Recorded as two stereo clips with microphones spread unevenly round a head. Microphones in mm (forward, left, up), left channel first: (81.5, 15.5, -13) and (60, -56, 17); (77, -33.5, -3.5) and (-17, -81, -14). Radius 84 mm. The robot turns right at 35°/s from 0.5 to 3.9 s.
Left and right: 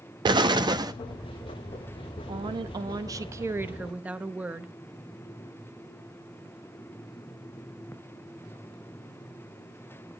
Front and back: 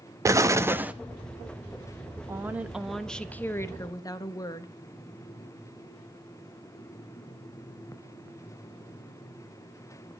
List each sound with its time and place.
0.2 s an explosion: 90° right, 0.8 m; by 0.9 s 75° right, 0.8 m
2.3 s a woman speaking: 85° right, 1.1 m; by 4.7 s 30° right, 1.1 m